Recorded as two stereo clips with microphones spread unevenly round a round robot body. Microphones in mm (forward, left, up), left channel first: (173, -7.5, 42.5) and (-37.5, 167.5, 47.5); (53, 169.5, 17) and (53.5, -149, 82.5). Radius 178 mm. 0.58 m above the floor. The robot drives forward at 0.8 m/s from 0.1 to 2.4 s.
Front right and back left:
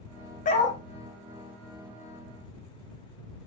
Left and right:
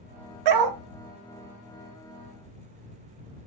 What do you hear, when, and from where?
0.5 s a dog barking: 110° right, 0.9 m; by 0.8 s 125° right, 1.0 m